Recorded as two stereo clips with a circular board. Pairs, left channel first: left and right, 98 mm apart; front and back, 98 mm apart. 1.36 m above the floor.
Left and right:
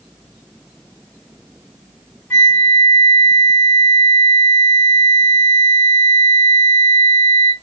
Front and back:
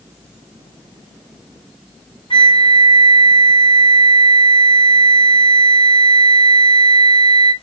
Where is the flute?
25° left, 1.6 m.